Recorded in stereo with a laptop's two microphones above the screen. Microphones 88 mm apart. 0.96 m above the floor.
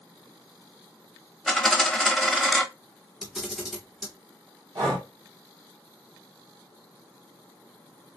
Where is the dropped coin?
5° left (ahead or behind), 0.8 m.